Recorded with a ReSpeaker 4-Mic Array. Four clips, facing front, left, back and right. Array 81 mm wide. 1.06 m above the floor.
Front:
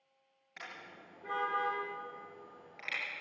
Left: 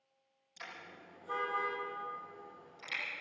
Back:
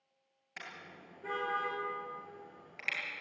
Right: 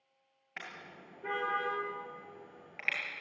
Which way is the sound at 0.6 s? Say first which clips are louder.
Right 2 dB, even; 100° right.